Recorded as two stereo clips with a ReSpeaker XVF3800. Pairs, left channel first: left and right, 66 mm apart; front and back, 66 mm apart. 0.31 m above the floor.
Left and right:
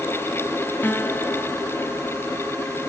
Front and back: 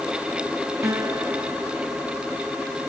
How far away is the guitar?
About 1.7 m.